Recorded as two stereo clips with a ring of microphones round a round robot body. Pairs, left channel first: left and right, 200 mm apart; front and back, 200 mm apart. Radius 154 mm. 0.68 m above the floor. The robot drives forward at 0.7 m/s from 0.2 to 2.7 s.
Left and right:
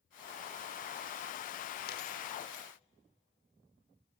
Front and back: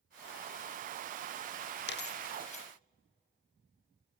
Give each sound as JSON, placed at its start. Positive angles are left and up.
{"t": 1.9, "sound": "a dropped coin", "azimuth_deg": 35, "distance_m": 0.9}